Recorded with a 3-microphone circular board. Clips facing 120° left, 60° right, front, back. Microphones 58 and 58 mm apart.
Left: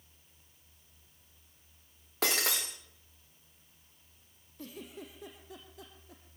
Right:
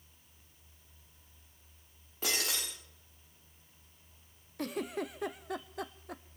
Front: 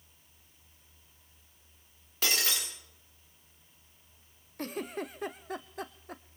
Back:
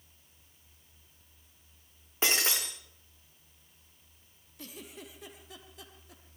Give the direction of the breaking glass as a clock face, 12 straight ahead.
8 o'clock.